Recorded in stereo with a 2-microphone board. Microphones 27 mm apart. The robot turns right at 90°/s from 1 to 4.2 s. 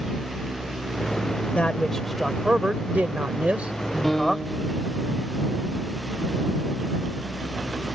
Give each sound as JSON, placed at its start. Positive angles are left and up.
{"t": 1.6, "sound": "a man speaking", "azimuth_deg": 125}
{"t": 4.0, "sound": "a piano", "side_deg": 0}